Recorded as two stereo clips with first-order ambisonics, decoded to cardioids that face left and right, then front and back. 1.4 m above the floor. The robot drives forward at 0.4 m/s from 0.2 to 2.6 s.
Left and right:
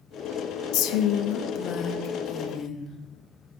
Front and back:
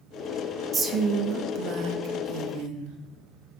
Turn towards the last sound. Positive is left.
turn(degrees=155)